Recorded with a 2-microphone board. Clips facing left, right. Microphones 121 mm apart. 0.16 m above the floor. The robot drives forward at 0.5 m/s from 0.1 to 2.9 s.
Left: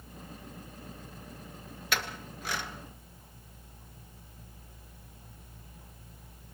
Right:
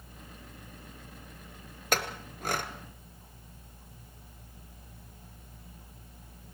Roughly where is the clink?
Right.